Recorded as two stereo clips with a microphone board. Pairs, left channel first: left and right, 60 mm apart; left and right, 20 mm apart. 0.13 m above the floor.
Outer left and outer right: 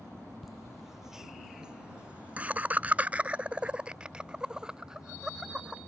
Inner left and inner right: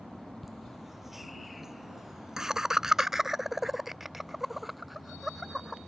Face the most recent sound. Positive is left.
turn(degrees=-10)  # may be behind; listen again after turning